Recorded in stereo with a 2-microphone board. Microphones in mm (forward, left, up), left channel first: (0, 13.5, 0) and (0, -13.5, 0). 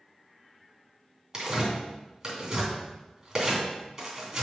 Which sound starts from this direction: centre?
Tearing paper, at 1.3 s.